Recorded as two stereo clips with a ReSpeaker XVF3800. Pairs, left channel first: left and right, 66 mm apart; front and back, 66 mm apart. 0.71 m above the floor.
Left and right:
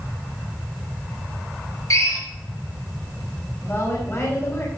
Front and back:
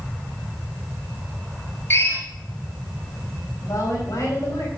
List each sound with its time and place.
1.9 s a drill: 55° left, 4.5 m
3.6 s a woman speaking: 35° left, 4.5 m